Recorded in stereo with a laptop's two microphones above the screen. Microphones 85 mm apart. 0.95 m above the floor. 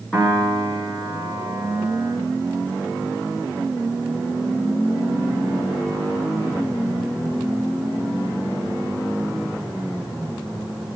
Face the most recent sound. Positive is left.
turn(degrees=15)  # may be behind; listen again after turning